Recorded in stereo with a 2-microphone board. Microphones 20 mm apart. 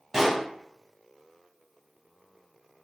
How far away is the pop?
About 1.8 m.